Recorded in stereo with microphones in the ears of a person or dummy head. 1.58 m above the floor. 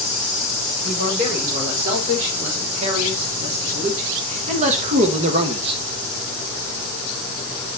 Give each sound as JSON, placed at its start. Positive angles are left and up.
{"t": 0.8, "sound": "a man speaking", "side_deg": -45, "distance_m": 4.0}